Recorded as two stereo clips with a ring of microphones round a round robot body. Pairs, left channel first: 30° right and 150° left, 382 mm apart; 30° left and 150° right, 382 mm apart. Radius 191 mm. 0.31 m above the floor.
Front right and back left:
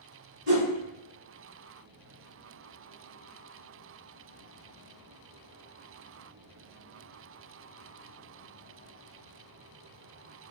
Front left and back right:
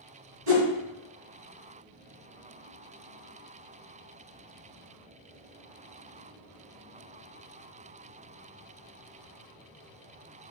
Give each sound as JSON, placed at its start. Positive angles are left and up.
{"t": 0.5, "sound": "a whoosh", "azimuth_deg": -155, "distance_m": 1.3}